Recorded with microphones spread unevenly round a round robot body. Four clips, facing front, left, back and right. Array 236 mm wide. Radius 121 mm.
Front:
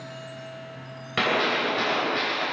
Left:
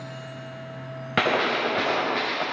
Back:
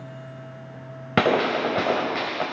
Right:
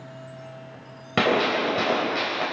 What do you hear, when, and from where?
1.2 s a gunshot: 175° right, 3 m